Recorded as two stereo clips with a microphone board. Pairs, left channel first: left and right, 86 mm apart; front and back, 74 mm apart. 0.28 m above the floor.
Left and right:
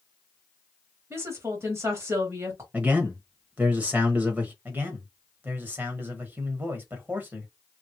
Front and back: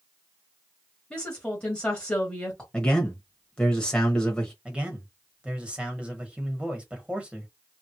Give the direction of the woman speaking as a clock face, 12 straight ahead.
2 o'clock.